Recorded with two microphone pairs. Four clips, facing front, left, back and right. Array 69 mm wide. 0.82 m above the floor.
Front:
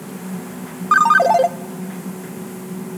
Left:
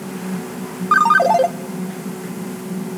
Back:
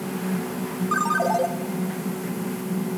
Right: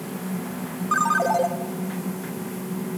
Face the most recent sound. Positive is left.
turn(degrees=35)